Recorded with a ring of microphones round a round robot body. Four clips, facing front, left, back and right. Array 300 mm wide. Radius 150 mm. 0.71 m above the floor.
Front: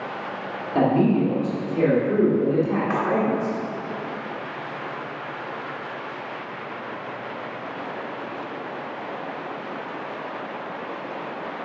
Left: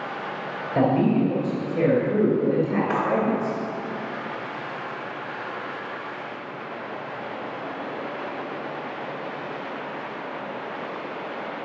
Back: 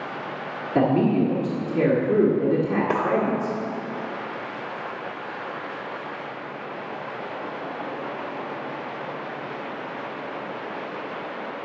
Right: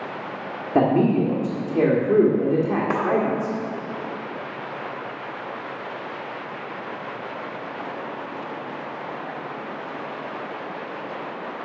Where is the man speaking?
105° right, 1.5 m.